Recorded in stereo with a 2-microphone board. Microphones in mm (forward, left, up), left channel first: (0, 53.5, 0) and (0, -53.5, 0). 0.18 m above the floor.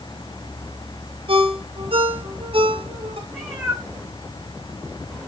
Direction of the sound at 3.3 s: 10° right (ahead or behind).